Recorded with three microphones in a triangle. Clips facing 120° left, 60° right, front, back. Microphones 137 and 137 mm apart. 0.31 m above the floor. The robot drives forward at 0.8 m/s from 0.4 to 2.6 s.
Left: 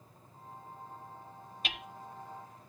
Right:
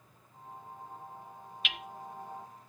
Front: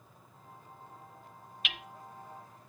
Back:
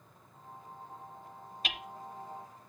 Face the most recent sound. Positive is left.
turn(degrees=170)